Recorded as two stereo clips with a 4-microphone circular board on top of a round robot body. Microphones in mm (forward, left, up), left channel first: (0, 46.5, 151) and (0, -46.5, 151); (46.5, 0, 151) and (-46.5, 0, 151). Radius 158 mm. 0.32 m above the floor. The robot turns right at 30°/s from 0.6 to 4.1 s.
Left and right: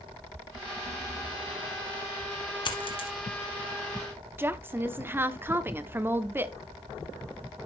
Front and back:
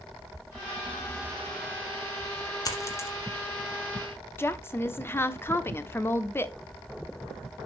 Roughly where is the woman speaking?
Ahead right.